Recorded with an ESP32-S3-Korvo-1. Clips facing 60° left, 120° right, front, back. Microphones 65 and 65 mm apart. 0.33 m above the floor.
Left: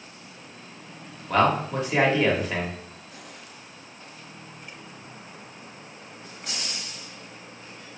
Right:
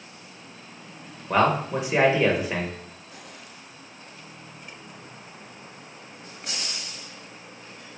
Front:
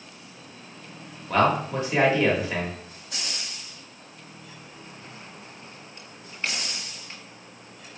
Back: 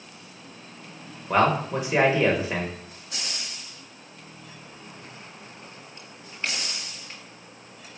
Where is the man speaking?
160° right, 0.8 m.